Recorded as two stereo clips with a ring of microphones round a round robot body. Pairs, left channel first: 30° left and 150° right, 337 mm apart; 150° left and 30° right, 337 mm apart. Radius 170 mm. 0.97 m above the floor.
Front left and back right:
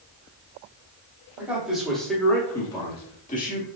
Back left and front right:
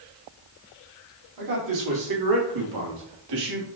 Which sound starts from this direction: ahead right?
A man speaking, at 1.4 s.